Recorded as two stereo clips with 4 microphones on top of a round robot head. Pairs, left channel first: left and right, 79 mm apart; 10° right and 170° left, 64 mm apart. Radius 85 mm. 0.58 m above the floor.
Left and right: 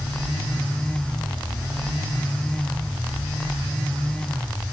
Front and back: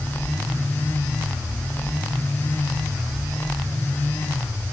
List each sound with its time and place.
Only background noise.